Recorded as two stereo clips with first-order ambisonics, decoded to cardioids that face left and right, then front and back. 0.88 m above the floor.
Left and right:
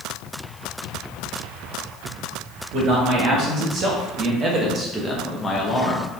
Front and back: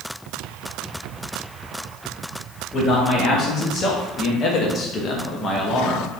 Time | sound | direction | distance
2.7 | a man speaking | 55° right | 2.0 m